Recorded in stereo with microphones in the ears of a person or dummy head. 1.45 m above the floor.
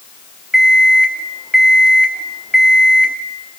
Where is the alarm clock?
5° right (ahead or behind), 1.2 m.